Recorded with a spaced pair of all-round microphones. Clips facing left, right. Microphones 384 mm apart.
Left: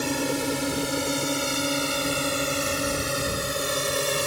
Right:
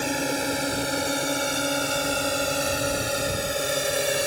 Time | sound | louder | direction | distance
0.0 | a drone | left 1 dB | 10° left (ahead or behind) | ?